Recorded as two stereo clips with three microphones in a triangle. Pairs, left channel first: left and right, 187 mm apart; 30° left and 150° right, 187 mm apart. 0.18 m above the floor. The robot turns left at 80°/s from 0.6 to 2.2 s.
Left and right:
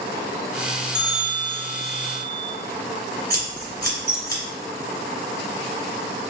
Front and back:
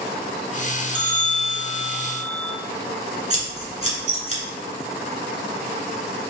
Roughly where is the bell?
Ahead.